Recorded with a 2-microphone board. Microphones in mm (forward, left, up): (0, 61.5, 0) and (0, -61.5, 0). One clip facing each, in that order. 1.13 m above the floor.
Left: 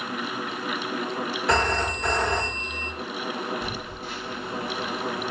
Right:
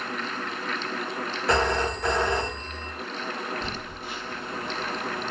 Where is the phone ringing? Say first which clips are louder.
Right 1 dB; 5° right (ahead or behind), 1.1 m.